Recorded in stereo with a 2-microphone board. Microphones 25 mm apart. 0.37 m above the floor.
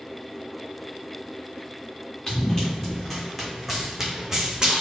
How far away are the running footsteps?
About 1.9 m.